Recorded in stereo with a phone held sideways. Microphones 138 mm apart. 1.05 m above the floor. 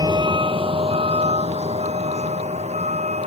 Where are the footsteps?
No footsteps in this recording.